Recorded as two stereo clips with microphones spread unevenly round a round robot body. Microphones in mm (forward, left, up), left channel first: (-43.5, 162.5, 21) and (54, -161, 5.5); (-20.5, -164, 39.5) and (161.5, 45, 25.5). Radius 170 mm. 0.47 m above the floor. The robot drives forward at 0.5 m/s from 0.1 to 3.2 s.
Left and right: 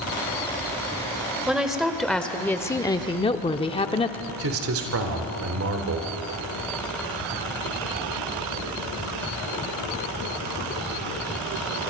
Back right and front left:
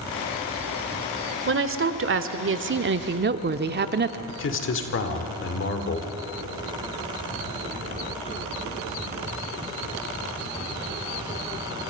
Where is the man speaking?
105° right, 1.9 m.